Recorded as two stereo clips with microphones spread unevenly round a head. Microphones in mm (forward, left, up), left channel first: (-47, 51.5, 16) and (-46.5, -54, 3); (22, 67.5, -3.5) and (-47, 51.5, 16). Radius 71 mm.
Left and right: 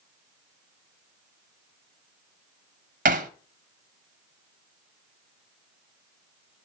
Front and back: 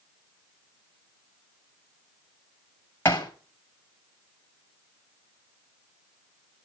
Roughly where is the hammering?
Ahead right.